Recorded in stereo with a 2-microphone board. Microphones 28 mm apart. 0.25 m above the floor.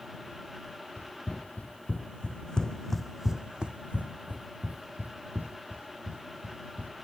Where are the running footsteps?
60° left (ahead or behind); by 7.0 s 85° right.